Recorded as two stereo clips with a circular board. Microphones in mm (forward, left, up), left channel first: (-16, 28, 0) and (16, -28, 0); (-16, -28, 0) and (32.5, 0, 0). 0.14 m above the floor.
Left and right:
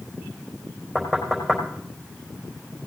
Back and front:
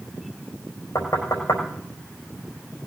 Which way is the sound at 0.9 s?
155° right.